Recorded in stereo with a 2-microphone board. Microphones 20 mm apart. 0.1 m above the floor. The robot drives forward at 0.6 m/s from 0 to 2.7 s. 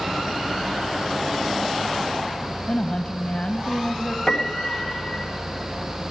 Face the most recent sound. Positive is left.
turn(degrees=10)  # may be behind; listen again after turning